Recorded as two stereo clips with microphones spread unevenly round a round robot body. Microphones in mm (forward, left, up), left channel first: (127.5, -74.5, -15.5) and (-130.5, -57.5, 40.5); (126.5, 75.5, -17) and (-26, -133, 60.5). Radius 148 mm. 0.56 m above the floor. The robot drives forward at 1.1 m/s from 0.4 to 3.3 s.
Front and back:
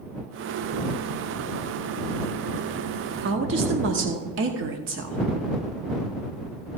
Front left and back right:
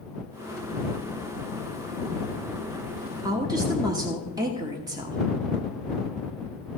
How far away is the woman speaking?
About 1.0 m.